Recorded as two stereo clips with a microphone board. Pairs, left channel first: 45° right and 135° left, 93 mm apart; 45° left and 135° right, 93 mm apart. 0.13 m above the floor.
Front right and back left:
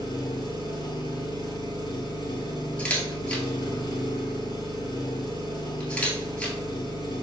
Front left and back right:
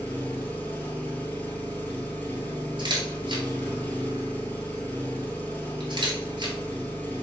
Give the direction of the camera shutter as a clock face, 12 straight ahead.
4 o'clock.